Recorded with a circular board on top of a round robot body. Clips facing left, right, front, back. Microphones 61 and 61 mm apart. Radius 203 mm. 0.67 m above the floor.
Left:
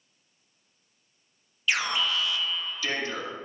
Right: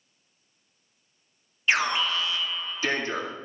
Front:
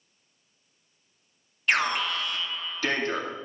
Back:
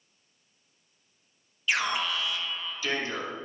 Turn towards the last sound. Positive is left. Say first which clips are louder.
# right 3 dB, front 3 dB
turn(degrees=-35)